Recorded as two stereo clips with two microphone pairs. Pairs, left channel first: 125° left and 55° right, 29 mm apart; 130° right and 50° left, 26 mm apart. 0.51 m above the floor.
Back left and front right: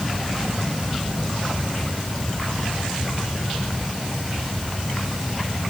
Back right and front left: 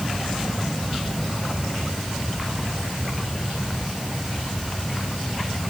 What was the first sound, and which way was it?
Only background noise.